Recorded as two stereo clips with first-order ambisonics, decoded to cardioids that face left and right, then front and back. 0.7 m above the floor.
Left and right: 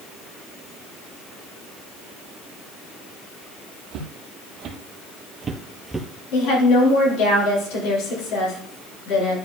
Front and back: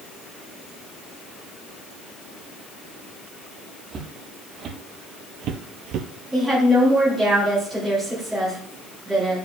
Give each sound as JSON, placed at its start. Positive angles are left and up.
{"t": 3.9, "sound": "footsteps", "azimuth_deg": -125, "distance_m": 1.5}
{"t": 6.3, "sound": "a woman speaking", "azimuth_deg": 100, "distance_m": 4.5}